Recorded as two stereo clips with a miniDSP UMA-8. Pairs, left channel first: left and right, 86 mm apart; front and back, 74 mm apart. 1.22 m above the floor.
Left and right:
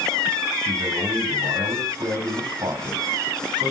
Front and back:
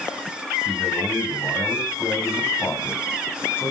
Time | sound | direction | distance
0.7 | a man speaking | 60° right | 6.5 m